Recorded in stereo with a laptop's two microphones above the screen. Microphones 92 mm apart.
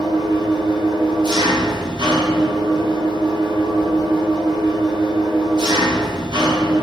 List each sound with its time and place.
0.0 s an engine running: 55° right (ahead or behind), 1.0 m